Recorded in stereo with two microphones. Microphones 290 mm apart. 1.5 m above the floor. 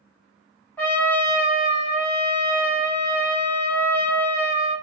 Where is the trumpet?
5° left (ahead or behind), 1.1 m.